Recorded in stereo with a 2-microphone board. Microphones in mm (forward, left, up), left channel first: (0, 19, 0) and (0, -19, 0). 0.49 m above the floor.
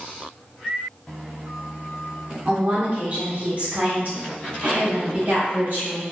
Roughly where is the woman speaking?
Right.